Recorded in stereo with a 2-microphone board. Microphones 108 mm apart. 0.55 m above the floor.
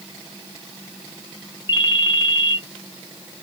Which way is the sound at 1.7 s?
45° left (ahead or behind).